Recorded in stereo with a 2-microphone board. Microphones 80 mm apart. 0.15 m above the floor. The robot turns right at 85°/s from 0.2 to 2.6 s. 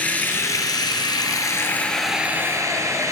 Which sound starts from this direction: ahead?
Running water, at 0.0 s.